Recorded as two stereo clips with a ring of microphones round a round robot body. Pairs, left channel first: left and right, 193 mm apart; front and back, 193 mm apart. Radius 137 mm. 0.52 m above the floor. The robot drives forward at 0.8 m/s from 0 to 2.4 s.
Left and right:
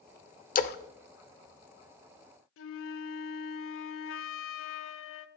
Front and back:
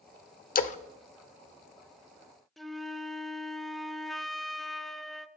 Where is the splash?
45° left, 0.8 m; by 0.8 s 55° left, 0.7 m.